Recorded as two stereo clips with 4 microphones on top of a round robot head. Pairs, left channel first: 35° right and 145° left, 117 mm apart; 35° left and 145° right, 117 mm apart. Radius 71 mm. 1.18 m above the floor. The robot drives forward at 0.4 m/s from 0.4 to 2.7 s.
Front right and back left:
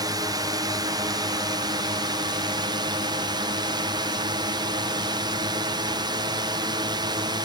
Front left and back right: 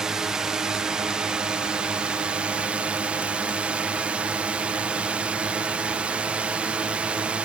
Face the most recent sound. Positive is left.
turn(degrees=145)